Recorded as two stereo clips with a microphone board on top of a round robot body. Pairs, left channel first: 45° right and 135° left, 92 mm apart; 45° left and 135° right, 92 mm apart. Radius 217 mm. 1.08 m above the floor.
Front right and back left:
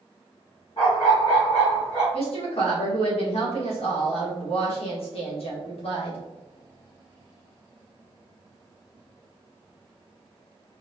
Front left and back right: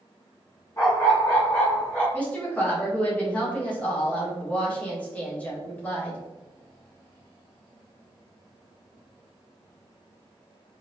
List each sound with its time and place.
0.8 s a dog barking: 15° right, 1.0 m; by 2.0 s 35° right, 2.5 m
2.1 s a woman speaking: 30° right, 1.5 m